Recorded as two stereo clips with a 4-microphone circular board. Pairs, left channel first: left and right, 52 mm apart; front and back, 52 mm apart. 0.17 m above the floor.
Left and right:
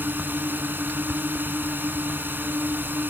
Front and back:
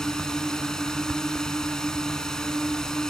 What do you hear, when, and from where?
0.0 s a drone: 70° right